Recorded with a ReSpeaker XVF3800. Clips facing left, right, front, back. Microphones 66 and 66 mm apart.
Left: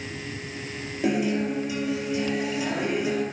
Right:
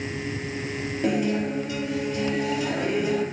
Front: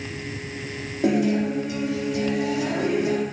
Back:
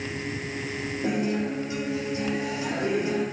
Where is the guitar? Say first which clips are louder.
Even, front 6 dB; 10° left, 4 m.